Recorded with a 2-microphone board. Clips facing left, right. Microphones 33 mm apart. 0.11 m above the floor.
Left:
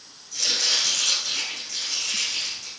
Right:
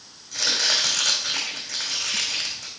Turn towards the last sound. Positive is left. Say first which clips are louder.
# right 2 dB
turn(degrees=-75)  # may be behind; listen again after turning